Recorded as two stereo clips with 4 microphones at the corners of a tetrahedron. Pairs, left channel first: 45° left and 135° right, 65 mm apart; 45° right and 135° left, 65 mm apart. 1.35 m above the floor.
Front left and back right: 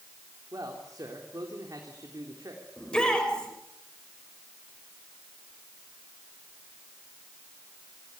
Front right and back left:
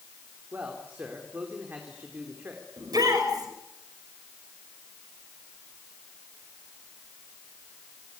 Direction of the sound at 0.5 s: 165° right.